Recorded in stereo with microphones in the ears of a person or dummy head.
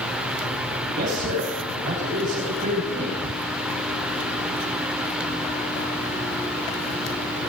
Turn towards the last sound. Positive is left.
turn(degrees=-45)  # may be behind; listen again after turning